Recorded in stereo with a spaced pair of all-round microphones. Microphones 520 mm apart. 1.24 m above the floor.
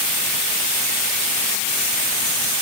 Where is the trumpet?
No trumpet in this recording.